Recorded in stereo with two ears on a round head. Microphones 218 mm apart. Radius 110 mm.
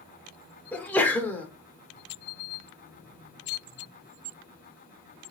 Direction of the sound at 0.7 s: 5° left (ahead or behind).